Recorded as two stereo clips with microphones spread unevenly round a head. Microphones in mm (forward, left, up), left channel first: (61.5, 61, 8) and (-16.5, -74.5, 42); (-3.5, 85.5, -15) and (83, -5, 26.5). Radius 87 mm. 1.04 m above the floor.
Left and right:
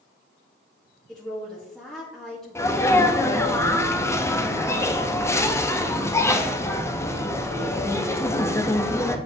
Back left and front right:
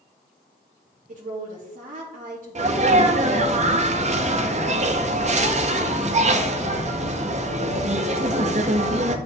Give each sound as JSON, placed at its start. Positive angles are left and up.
{"t": 1.1, "sound": "a woman speaking", "azimuth_deg": -25, "distance_m": 1.9}
{"t": 2.5, "sound": "a sneeze", "azimuth_deg": -10, "distance_m": 1.4}